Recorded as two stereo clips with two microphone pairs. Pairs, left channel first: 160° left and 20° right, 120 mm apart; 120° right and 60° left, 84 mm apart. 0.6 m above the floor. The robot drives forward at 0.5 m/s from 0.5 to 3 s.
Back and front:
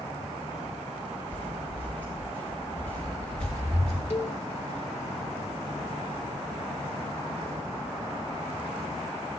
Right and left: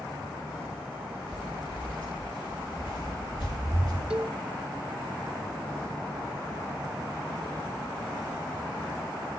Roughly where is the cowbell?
Behind left.